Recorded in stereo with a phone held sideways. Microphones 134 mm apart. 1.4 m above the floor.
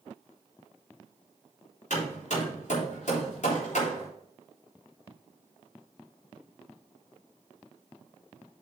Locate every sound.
1.9 s hammering: 65° left (ahead or behind), 3.5 m